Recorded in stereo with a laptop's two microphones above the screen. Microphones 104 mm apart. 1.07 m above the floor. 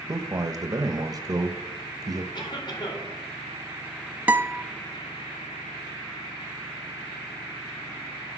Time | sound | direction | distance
0.1 | a man speaking | 35° right (ahead or behind) | 0.9 m
2.3 | a cough | 45° left (ahead or behind) | 4 m
4.3 | a guitar | 15° right (ahead or behind) | 0.6 m